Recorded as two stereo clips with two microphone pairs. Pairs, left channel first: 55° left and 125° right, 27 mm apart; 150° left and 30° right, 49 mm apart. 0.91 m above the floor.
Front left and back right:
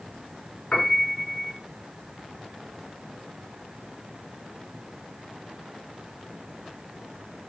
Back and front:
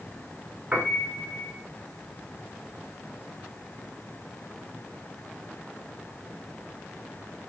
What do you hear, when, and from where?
0.7 s a piano: 20° left, 3.5 m